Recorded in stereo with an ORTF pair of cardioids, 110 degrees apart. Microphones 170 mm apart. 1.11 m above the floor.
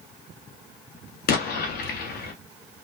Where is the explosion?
65° left, 0.9 m.